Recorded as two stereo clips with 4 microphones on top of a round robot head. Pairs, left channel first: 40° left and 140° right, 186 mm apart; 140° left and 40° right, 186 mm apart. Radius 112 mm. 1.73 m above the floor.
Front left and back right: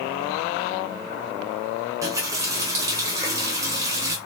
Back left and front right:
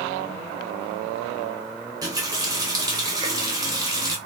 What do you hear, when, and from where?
2.0 s a running tap: 85° right, 0.7 m